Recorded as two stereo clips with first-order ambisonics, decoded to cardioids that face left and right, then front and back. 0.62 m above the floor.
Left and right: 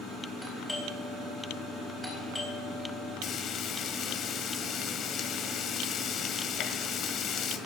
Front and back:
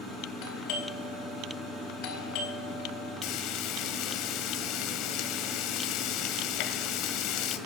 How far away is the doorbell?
About 4 m.